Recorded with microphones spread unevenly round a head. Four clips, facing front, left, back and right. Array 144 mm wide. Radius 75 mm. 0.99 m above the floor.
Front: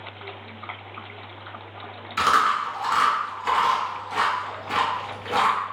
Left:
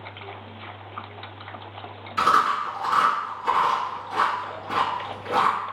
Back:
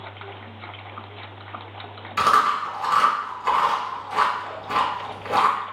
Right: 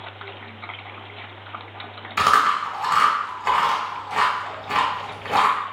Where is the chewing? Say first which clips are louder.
Right 2 dB, back 2 dB; 120° right, 1.7 m.